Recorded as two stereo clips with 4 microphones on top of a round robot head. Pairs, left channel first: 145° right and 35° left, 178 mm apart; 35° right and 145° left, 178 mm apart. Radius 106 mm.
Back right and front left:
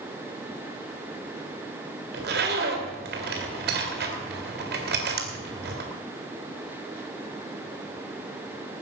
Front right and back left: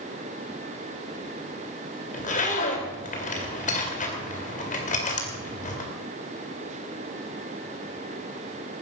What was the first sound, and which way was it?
A zipper, 10° left.